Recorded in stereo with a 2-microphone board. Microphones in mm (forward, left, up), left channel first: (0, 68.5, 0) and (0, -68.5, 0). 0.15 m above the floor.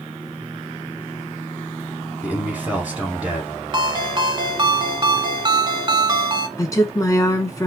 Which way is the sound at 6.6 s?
25° left (ahead or behind).